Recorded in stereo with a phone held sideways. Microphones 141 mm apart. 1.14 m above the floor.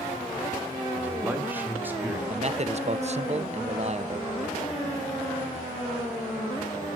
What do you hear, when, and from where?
0.9 s a man speaking: 10° right (ahead or behind), 2.5 m; by 2.2 s 15° right (ahead or behind), 4 m
2.3 s a man speaking: 50° right (ahead or behind), 0.8 m